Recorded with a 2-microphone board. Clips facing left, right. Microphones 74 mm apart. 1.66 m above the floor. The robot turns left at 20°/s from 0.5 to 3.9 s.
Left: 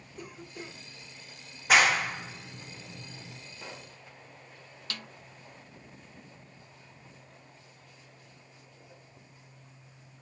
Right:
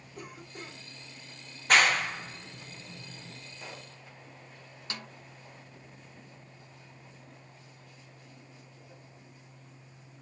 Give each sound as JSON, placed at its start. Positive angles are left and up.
{"t": 0.2, "sound": "a cough", "side_deg": -55, "distance_m": 2.5}
{"t": 1.7, "sound": "a clap", "side_deg": 5, "distance_m": 0.6}
{"t": 3.6, "sound": "a pop", "side_deg": -5, "distance_m": 1.0}
{"t": 4.9, "sound": "a snare drum", "side_deg": -20, "distance_m": 0.5}